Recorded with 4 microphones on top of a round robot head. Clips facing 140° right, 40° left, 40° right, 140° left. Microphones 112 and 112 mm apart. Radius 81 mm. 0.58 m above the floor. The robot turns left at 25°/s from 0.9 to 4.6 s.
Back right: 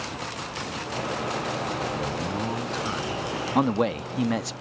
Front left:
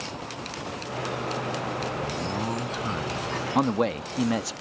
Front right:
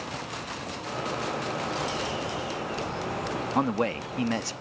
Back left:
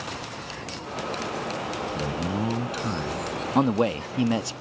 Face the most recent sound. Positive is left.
turn(degrees=120)